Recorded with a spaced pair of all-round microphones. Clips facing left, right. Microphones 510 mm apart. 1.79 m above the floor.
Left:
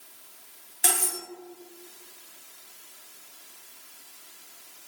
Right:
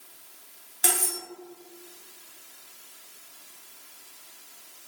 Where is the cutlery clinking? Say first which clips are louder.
Right 1 dB; 25° right (ahead or behind), 1.1 m.